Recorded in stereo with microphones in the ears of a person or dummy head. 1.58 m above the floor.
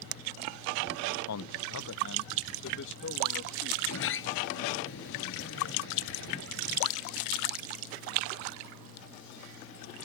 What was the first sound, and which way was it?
A man speaking, 80° left.